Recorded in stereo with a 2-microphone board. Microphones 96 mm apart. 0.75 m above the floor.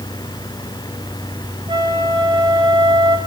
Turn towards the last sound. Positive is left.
turn(degrees=-55)  # may be behind; listen again after turning